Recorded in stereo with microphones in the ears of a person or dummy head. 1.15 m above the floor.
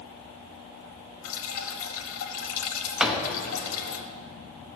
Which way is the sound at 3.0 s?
5° right (ahead or behind).